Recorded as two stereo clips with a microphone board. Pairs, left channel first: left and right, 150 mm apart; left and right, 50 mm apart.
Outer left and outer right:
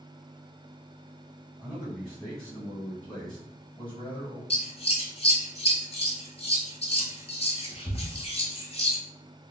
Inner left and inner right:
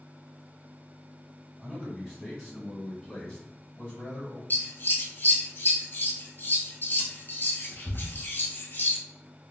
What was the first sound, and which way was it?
A man speaking, 10° right (ahead or behind).